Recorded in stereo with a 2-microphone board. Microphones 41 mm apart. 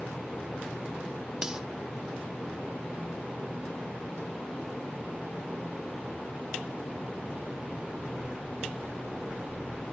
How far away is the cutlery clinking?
About 1.4 m.